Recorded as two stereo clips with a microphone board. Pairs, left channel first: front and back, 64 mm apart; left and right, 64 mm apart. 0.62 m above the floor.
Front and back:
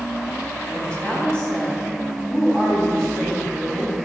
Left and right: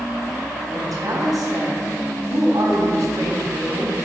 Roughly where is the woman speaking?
Right.